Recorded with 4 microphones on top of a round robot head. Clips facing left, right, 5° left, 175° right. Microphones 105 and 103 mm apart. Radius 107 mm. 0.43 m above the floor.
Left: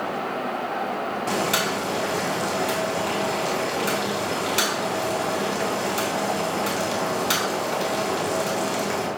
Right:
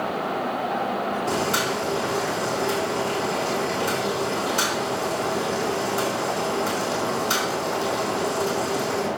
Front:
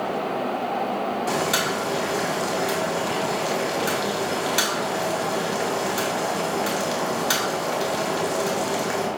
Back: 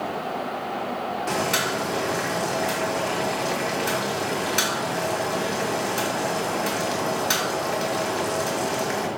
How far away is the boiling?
About 3 m.